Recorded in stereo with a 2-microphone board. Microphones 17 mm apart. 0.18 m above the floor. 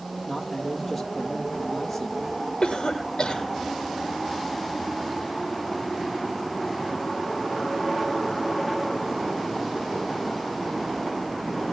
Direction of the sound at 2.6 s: 45° left (ahead or behind).